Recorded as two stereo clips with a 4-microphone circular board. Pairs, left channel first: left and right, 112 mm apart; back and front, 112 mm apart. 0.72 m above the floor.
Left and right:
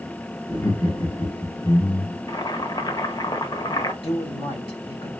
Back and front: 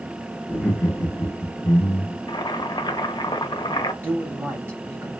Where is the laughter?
105° left, 1.3 m; by 2.2 s 115° left, 2 m.